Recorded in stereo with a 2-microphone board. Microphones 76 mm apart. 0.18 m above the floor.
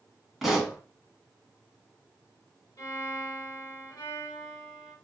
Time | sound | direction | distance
0.4 | a pop | 5° right (ahead or behind) | 1.1 m
2.8 | a violin | 45° left (ahead or behind) | 1.5 m